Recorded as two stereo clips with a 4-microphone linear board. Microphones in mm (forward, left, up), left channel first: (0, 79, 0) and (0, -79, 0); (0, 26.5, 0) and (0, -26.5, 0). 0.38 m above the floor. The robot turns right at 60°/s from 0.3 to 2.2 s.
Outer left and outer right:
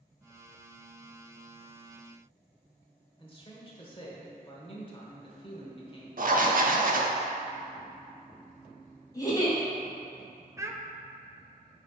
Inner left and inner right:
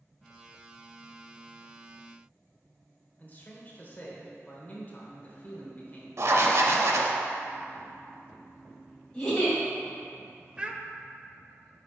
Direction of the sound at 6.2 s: 60° right (ahead or behind).